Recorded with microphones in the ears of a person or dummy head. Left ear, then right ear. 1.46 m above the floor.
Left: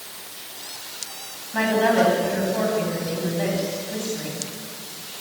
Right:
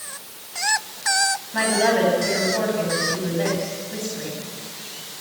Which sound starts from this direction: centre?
A woman speaking, at 1.5 s.